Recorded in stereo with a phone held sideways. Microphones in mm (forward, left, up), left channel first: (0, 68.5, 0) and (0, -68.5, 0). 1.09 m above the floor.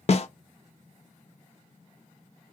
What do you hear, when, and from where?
0.1 s a snare drum: 50° left (ahead or behind), 0.5 m